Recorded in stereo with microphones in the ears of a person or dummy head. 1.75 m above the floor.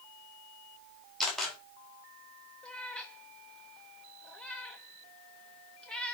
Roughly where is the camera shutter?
Centre.